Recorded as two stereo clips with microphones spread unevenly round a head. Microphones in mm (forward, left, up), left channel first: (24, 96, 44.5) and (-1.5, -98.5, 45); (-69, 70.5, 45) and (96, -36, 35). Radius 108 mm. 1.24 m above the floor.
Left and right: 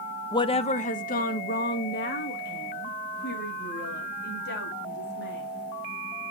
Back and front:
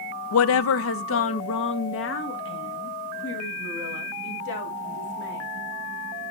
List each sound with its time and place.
0.3 s a woman speaking: 155° left, 0.5 m; by 5.5 s 120° left, 4 m